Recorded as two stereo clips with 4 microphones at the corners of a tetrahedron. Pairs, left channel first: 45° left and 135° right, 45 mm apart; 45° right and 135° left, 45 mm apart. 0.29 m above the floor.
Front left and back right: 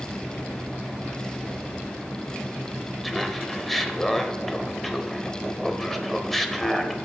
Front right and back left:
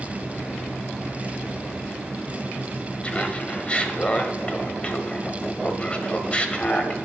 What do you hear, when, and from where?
3.0 s laughter: 35° right, 0.9 m